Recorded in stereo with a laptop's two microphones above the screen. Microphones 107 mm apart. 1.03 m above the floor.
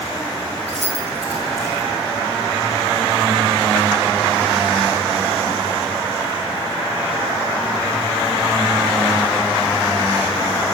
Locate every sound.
0.7 s keys jangling: 90° right, 3 m